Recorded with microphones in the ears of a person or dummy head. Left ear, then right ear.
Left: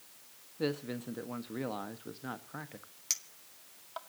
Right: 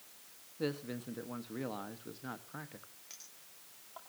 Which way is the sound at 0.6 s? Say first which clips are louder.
Left 3 dB; 5° left (ahead or behind).